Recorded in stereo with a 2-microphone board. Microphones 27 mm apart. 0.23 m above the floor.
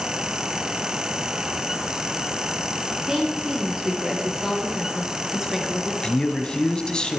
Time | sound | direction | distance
3.1 | a woman speaking | 30° right (ahead or behind) | 5 m
6.0 | a man speaking | 30° left (ahead or behind) | 1.5 m